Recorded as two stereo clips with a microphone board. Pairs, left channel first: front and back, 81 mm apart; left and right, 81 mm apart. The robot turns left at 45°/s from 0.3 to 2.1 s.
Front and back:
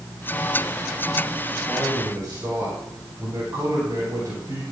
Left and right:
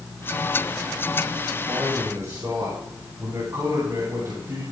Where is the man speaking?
110° right, 7 m; by 4.6 s 130° right, 7 m.